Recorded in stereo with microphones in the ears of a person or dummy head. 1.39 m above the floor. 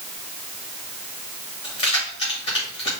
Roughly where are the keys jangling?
Left.